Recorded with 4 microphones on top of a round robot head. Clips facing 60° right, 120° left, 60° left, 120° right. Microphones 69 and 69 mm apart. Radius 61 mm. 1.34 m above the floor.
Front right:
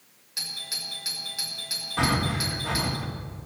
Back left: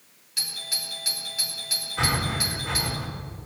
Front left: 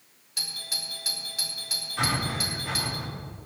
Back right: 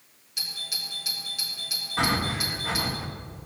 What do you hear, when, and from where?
0.4 s a doorbell: 10° left, 5 m
2.0 s breathing: 65° right, 1.6 m